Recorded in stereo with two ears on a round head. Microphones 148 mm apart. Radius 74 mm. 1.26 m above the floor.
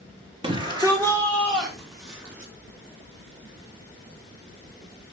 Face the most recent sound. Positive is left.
turn(degrees=-20)  # may be behind; listen again after turning